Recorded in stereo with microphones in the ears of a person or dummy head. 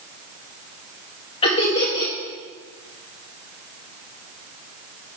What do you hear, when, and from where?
1.4 s laughter: 30° left (ahead or behind), 1.9 m